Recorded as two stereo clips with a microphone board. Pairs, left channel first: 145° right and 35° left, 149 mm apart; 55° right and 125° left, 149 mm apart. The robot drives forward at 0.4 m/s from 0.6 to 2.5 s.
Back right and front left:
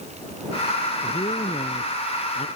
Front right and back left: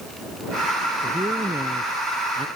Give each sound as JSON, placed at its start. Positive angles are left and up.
{"t": 1.0, "sound": "a man speaking", "azimuth_deg": 175}